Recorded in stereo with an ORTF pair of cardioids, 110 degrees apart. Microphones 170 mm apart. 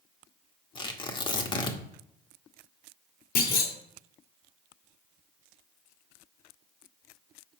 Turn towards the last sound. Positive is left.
turn(degrees=70)